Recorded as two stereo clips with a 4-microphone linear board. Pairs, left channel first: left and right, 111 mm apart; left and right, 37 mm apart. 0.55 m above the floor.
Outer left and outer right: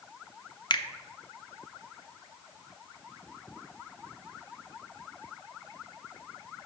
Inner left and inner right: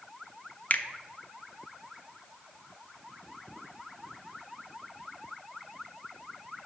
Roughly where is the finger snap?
Left.